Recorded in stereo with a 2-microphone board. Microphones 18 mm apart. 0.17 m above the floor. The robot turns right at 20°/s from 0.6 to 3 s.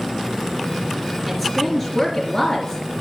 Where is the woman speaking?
5° left, 1.9 m; by 2.8 s 35° left, 1.9 m.